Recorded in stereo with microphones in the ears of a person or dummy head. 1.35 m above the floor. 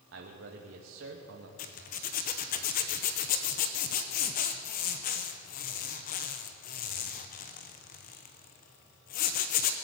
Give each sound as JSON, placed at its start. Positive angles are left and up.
{"t": 0.1, "sound": "a man speaking", "side_deg": -60, "distance_m": 2.0}
{"t": 1.6, "sound": "a zipper", "side_deg": 45, "distance_m": 0.9}